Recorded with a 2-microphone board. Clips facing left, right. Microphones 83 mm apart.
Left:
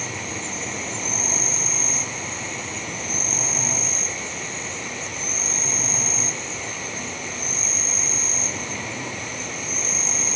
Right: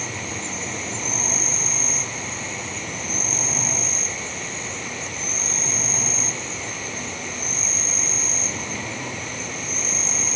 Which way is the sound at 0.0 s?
Centre (ahead or behind).